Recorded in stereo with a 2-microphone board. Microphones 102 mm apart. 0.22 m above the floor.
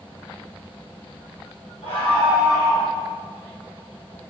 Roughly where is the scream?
Left.